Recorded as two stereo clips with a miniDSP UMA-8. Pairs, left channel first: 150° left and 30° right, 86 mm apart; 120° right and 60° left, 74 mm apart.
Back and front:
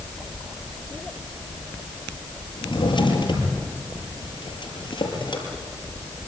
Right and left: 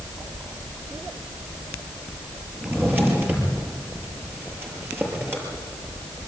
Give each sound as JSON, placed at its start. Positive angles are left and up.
{"t": 2.6, "sound": "a drawer", "azimuth_deg": 125, "distance_m": 6.0}